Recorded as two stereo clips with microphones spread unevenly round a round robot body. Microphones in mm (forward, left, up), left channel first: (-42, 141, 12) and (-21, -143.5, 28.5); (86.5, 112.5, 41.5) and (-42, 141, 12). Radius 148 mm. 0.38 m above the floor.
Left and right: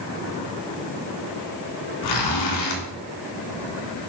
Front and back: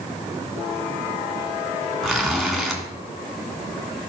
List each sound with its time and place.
2.0 s a zipper: 80° left, 2 m